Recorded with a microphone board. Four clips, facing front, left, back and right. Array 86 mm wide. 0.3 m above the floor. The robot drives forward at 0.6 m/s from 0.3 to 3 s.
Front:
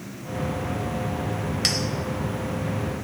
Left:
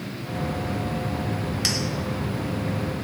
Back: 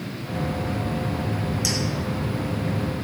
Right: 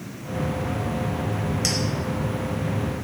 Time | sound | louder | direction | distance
1.6 | a clink | right 2 dB, back 1 dB | 10° left | 0.6 m